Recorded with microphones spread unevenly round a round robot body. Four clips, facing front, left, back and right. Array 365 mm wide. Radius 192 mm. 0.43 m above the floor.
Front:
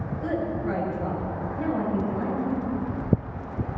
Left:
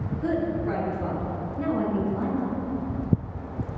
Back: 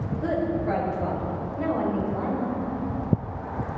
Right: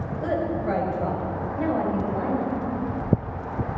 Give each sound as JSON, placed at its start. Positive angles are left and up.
{"t": 0.2, "sound": "a woman speaking", "azimuth_deg": -125, "distance_m": 5.5}